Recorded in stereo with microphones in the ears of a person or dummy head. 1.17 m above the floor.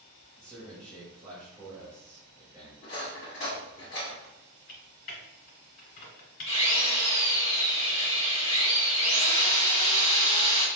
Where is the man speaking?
20° right (ahead or behind), 1.1 m.